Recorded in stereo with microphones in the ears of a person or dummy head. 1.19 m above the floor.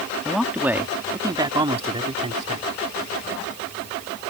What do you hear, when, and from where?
0.2 s a man speaking: centre (ahead or behind); by 2.7 s 35° right (ahead or behind)